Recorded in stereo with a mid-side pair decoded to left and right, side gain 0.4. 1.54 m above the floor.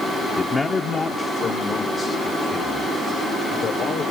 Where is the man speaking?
25° left, 1.1 m; by 4.0 s 70° left, 6 m.